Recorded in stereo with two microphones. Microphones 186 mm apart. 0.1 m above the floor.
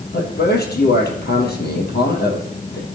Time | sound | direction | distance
0.1 | a man speaking | 60° left (ahead or behind) | 3.5 m